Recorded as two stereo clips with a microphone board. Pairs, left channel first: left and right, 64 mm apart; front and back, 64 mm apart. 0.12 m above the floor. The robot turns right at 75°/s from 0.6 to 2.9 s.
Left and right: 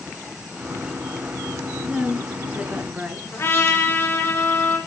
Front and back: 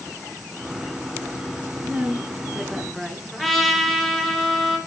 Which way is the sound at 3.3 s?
85° left.